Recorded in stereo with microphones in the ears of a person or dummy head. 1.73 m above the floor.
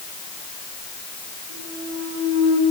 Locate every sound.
1.5 s a clunk: 70° right (ahead or behind), 5.5 m